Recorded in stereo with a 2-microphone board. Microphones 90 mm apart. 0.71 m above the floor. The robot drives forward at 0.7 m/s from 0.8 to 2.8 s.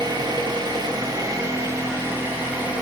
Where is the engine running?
55° right (ahead or behind), 0.9 m; by 2.8 s 20° right (ahead or behind), 2.0 m.